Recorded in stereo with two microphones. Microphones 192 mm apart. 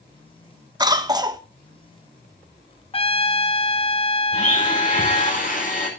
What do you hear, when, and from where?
0.8 s a cough: 20° right (ahead or behind), 1.2 m
2.9 s a trumpet: 30° left (ahead or behind), 0.7 m
4.3 s a blender: 45° left (ahead or behind), 5.5 m